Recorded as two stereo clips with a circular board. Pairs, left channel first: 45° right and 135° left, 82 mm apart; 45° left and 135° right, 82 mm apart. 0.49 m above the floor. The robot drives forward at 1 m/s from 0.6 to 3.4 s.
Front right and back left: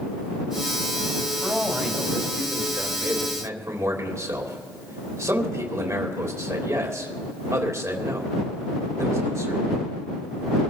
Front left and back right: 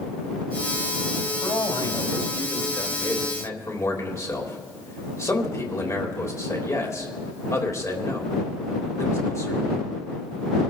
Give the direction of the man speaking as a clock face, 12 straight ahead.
11 o'clock.